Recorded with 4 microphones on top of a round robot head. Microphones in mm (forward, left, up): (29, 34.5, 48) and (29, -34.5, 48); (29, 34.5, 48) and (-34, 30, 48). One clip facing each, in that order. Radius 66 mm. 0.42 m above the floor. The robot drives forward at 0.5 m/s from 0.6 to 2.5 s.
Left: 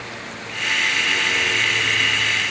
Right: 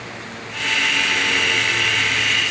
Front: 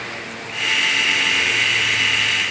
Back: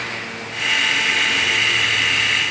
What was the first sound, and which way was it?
Only background noise.